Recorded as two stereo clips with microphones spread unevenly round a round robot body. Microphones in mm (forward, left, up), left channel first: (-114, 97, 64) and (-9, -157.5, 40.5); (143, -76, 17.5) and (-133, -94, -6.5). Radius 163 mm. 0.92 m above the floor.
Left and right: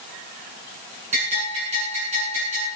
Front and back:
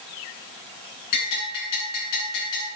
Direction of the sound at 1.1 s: 5° left.